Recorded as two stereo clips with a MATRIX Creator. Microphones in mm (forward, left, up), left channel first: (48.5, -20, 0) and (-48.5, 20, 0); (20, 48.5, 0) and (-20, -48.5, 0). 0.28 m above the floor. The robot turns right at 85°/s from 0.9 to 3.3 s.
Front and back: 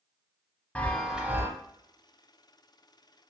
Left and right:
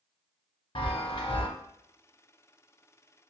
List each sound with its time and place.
0.8 s a chime: 55° left, 0.5 m; by 1.5 s 105° left, 0.5 m